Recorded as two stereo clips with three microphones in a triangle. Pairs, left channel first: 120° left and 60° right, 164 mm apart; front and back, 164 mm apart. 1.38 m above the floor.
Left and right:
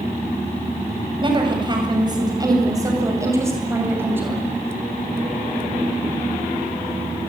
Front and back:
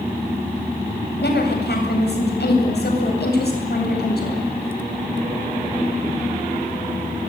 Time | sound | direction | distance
1.2 | a woman speaking | straight ahead | 8 m